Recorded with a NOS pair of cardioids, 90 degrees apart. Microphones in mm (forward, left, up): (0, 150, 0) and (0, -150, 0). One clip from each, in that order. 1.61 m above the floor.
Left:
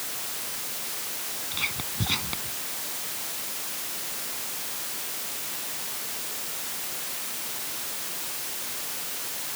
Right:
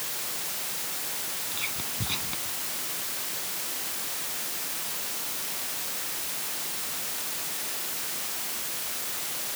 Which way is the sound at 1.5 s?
40° left.